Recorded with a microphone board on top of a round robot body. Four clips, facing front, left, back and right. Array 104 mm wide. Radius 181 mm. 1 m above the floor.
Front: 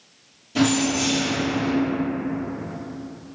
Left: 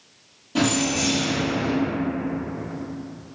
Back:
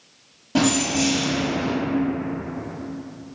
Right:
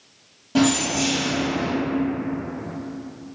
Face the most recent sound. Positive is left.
turn(degrees=-150)